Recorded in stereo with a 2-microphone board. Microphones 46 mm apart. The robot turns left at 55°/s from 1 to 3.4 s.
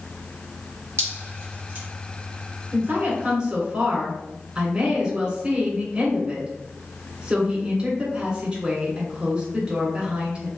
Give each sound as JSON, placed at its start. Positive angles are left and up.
{"t": 1.0, "sound": "dripping", "side_deg": -75, "distance_m": 1.7}
{"t": 2.7, "sound": "a woman speaking", "azimuth_deg": -125, "distance_m": 2.0}